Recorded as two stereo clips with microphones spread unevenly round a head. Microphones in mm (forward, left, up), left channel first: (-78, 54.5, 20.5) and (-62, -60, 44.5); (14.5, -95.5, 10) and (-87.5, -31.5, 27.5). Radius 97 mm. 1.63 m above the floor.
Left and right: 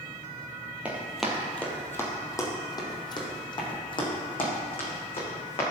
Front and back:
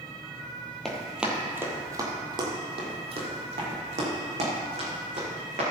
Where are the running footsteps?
130° right, 1.8 m; by 5.6 s 140° left, 5 m.